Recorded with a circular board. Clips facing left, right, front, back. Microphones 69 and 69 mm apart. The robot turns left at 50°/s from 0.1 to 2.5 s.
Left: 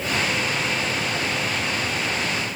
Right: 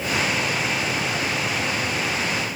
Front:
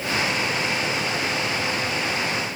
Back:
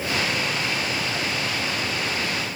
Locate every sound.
Only background noise.